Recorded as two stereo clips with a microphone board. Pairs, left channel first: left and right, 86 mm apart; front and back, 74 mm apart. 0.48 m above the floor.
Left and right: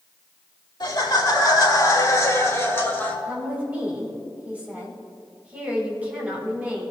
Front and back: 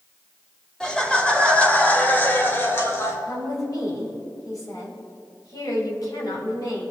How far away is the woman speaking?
About 2.5 m.